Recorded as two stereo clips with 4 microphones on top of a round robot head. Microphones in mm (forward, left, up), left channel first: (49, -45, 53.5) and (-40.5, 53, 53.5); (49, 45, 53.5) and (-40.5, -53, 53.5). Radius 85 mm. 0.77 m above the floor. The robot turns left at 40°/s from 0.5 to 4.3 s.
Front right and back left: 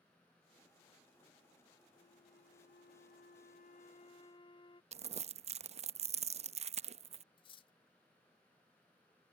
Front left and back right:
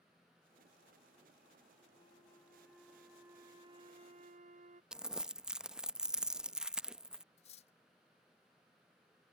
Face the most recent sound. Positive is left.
turn(degrees=5)